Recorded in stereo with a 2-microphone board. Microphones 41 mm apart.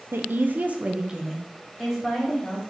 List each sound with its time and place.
0.1 s a woman speaking: 65° right (ahead or behind), 0.5 m; by 2.6 s centre (ahead or behind), 1.4 m